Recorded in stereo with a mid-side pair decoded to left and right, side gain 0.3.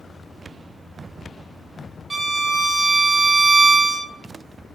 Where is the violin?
40° right, 0.6 m.